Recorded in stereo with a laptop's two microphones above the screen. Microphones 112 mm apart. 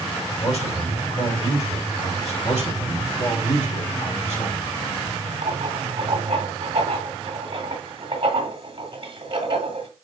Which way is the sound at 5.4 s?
50° right (ahead or behind).